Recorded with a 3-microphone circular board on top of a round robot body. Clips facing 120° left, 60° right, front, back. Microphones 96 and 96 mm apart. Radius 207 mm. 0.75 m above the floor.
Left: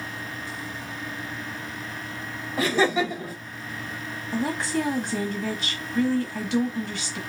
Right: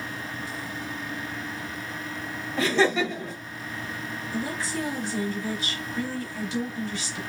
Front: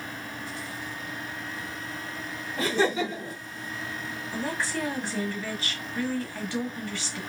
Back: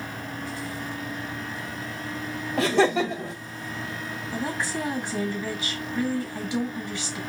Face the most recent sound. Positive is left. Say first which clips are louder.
# left 5 dB, back 1 dB
turn(degrees=110)